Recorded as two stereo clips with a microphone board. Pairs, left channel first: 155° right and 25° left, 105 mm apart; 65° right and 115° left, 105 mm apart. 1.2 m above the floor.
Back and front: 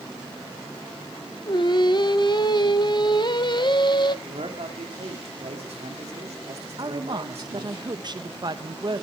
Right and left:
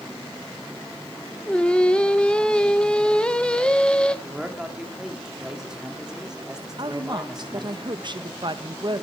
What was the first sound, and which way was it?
Singing, 145° right.